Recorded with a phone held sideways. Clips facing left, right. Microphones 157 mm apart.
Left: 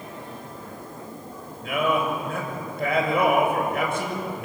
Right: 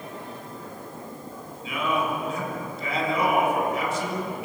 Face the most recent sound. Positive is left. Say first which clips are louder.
# left 3 dB
turn(degrees=65)  # may be behind; listen again after turning